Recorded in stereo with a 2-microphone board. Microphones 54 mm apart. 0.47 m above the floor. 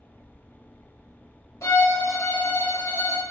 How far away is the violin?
About 0.8 m.